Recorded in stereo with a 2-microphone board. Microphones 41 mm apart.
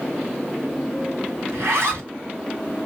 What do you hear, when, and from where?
1.5 s a zipper: 70° right (ahead or behind), 2.5 m